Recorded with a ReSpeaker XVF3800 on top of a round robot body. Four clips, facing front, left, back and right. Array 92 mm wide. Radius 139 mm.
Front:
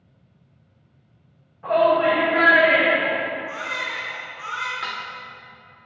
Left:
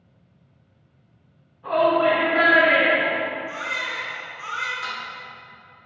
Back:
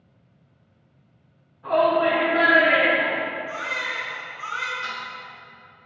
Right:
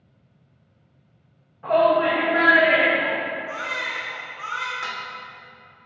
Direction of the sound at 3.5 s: 45° right.